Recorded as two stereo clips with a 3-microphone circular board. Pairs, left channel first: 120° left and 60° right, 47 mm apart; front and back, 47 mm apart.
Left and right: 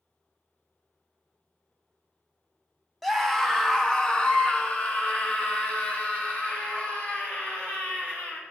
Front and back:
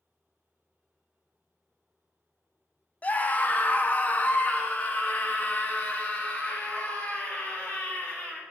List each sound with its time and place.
3.0 s a scream: 35° left, 1.2 m; by 8.4 s 65° left, 4 m